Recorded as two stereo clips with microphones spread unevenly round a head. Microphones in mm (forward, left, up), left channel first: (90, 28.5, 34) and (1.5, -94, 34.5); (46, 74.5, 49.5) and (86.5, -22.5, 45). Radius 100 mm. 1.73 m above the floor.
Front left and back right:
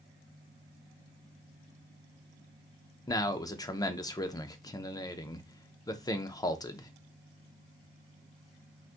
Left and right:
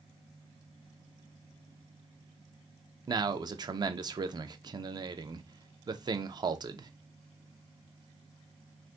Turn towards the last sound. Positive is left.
turn(degrees=-15)